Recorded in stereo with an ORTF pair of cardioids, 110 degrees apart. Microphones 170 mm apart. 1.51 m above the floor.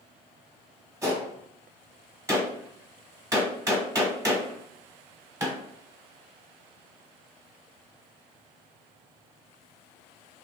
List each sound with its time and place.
1.0 s a gunshot: 15° right, 1.2 m